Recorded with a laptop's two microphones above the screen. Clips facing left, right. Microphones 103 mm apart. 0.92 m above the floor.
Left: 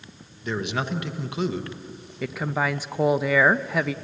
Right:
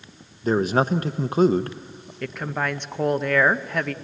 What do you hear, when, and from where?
0.4 s a man speaking: 40° right (ahead or behind), 0.7 m
2.2 s a woman speaking: 5° left (ahead or behind), 0.5 m